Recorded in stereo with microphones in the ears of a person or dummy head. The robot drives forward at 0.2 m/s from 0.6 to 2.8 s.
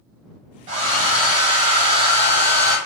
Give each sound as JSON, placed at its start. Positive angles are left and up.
{"t": 0.7, "sound": "a hair dryer", "side_deg": -35, "distance_m": 0.8}